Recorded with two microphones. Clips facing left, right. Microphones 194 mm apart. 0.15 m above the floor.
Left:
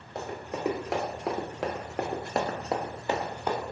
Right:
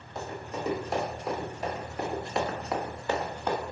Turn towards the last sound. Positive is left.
turn(degrees=5)  # may be behind; listen again after turning